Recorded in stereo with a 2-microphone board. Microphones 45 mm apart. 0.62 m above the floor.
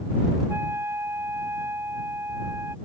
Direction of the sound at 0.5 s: 80° right.